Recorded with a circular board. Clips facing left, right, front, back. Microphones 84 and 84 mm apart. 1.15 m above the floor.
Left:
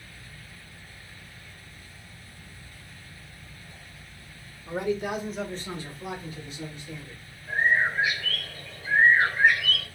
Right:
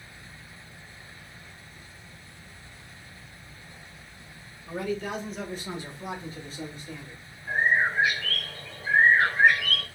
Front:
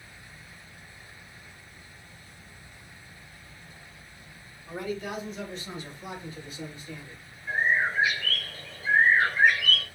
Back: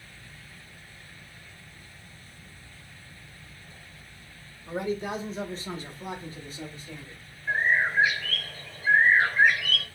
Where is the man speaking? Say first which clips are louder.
Left 3 dB, back 3 dB; 125° left, 0.8 m; by 7.2 s 125° right, 1.3 m.